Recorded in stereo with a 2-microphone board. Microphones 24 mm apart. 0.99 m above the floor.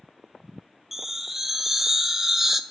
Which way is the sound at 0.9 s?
15° right (ahead or behind).